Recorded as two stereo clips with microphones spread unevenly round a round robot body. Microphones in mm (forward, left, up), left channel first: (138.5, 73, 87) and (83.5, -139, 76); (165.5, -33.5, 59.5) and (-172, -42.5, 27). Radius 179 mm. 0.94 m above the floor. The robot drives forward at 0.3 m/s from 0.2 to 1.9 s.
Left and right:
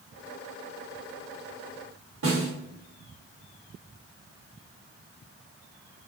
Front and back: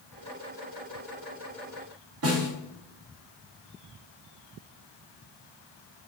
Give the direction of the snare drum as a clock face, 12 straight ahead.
4 o'clock.